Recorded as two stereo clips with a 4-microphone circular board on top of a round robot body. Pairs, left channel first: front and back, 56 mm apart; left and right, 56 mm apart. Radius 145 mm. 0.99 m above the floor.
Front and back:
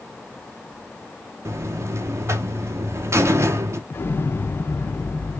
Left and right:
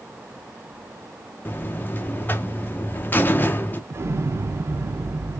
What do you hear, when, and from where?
1.4 s a buzzer: 145° left, 0.6 m
3.9 s an explosion: 50° right, 0.5 m